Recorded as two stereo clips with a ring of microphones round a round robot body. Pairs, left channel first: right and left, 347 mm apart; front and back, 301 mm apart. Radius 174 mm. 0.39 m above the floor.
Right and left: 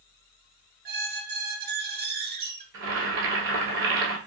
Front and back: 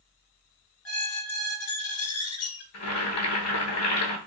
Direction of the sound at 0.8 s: 30° left.